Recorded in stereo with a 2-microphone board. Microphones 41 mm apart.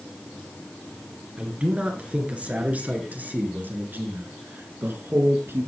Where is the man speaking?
25° right (ahead or behind), 3.5 m; by 5.7 s 70° right (ahead or behind), 3 m.